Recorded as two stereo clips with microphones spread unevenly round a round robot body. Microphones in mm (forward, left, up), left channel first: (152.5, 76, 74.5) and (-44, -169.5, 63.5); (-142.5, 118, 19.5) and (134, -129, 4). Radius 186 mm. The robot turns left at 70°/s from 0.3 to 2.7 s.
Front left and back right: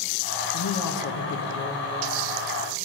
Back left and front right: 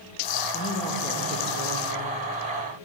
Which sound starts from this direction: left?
A woman speaking, at 0.5 s.